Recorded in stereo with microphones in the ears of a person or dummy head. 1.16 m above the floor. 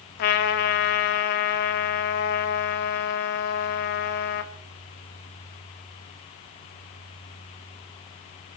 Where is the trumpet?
50° left (ahead or behind), 1.5 m.